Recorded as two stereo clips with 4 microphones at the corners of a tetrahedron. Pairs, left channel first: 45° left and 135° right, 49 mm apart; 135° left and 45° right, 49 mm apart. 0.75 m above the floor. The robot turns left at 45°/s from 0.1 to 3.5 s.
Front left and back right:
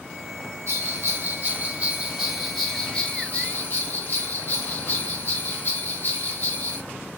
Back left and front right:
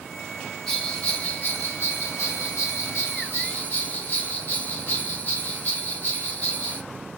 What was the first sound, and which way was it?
A bell, 140° right.